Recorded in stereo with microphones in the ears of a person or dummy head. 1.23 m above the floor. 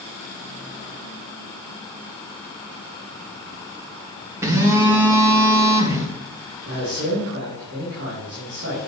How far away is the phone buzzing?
About 1.2 m.